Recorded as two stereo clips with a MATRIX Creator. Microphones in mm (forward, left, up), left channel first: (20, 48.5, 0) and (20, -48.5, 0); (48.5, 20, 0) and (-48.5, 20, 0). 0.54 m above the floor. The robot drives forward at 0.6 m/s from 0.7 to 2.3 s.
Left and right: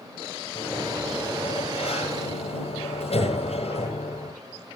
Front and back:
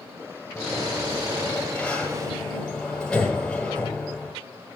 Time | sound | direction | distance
0.6 | a sliding door | 75° left | 8.5 m